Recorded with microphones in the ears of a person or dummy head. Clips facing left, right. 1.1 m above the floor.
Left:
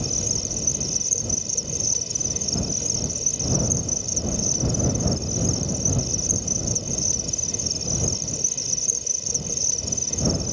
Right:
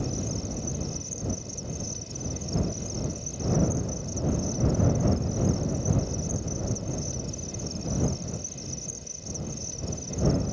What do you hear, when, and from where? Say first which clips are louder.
0.0 s an insect: even; 75° left (ahead or behind)